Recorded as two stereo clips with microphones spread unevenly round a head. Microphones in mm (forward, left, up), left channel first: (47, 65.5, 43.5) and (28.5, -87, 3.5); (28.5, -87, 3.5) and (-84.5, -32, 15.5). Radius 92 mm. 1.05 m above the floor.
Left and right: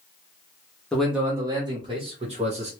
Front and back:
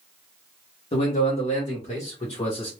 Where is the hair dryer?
No hair dryer in this recording.